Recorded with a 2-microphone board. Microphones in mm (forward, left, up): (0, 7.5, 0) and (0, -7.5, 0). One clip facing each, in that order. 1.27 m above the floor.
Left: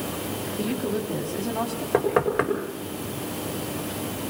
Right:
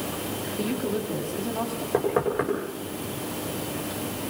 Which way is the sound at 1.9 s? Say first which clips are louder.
Left 2 dB; 45° left (ahead or behind).